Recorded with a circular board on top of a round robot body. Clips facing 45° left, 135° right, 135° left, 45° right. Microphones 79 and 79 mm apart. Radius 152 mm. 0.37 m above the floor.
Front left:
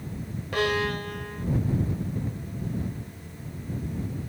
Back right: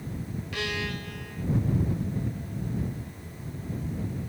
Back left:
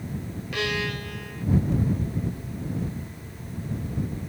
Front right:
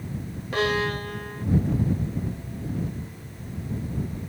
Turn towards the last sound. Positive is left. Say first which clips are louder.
# front left 8 dB, front right 5 dB
turn(degrees=5)